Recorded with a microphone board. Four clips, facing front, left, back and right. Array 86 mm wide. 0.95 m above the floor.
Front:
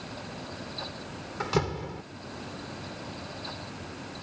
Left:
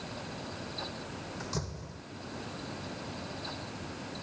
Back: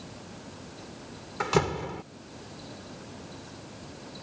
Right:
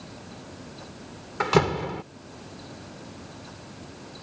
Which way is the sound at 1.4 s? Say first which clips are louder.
Right 21 dB, back 3 dB; 100° right.